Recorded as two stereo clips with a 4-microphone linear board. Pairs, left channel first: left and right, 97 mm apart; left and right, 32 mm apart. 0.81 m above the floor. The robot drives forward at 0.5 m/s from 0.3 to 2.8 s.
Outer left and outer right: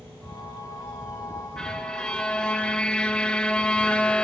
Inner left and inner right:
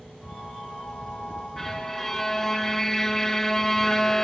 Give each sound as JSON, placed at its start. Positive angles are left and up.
{"t": 1.6, "sound": "a violin", "side_deg": 5, "distance_m": 1.2}